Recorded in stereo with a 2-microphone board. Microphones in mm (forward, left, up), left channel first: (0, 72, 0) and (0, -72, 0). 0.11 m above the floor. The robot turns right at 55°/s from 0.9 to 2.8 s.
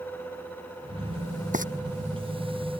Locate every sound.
1.5 s frying: 60° right (ahead or behind); by 1.6 s 65° right (ahead or behind)